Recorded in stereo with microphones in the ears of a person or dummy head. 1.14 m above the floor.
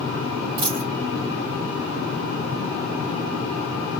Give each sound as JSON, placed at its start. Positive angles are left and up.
{"t": 0.6, "sound": "a dropped coin", "side_deg": -20, "distance_m": 0.9}